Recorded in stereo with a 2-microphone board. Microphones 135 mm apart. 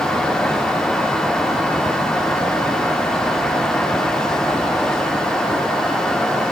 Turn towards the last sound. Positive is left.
No sound to turn to.